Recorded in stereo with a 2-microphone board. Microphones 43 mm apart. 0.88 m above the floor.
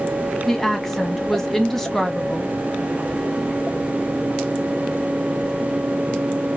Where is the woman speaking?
5° left (ahead or behind), 1.2 m.